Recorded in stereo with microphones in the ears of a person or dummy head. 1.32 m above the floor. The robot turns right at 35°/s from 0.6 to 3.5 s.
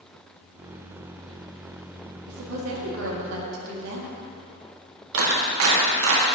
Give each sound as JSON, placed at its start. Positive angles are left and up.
{"t": 2.3, "sound": "a woman speaking", "azimuth_deg": -100, "distance_m": 1.8}
{"t": 5.1, "sound": "a clap", "side_deg": -75, "distance_m": 1.6}